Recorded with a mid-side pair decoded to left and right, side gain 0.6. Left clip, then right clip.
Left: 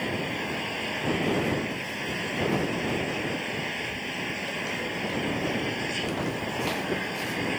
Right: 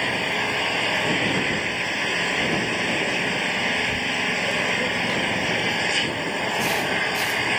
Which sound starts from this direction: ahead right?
An engine running, at 0.0 s.